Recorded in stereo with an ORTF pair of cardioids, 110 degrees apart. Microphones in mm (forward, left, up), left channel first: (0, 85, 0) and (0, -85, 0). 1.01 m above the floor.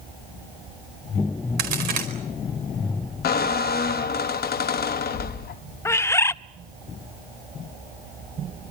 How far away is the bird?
About 0.5 m.